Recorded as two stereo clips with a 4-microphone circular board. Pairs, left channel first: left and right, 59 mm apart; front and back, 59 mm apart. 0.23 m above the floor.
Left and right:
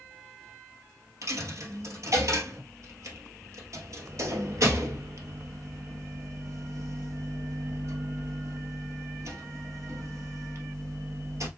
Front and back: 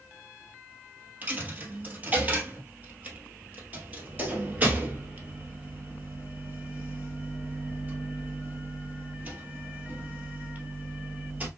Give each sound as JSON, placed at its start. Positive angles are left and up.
{"t": 1.2, "sound": "a dropped coin", "azimuth_deg": -120, "distance_m": 1.4}